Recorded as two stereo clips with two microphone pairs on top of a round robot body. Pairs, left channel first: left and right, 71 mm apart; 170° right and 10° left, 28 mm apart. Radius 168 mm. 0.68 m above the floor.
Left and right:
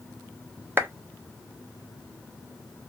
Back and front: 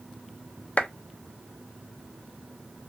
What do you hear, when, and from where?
0.8 s a clap: 140° right, 0.7 m